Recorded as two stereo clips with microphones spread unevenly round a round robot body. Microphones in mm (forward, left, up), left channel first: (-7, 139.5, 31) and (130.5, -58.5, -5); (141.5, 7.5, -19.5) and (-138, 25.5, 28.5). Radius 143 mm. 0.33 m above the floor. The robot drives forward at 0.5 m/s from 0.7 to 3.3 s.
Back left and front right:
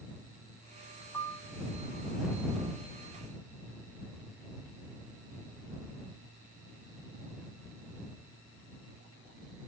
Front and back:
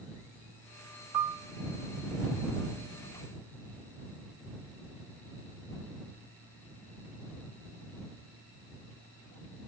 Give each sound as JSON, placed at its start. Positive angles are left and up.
{"t": 1.1, "sound": "a piano", "azimuth_deg": -150, "distance_m": 0.6}